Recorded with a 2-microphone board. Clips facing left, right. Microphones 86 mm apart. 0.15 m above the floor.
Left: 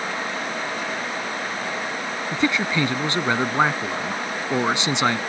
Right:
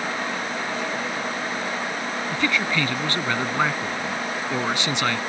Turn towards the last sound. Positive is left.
turn(degrees=20)  # may be behind; listen again after turning